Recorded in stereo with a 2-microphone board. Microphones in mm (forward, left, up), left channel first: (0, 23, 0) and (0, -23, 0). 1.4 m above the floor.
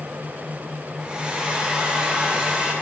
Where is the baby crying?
I don't hear a baby crying.